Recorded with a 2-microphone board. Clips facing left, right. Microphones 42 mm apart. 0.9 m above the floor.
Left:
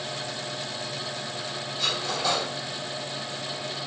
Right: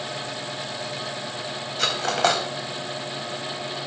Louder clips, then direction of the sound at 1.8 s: Right 6 dB; 75° right (ahead or behind).